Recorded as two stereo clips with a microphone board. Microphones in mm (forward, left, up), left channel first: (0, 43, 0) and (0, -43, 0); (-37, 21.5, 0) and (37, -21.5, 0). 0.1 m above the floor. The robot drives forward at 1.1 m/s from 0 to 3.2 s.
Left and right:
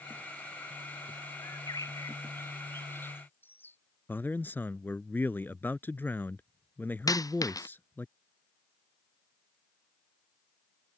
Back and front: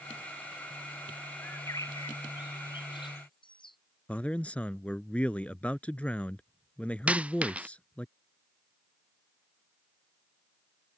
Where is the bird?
95° left; by 3.8 s 155° left.